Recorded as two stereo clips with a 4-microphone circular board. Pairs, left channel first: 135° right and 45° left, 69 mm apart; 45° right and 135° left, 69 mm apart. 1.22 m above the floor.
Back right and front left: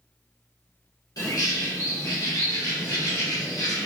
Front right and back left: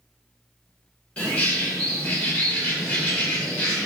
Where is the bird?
115° right, 1.6 m.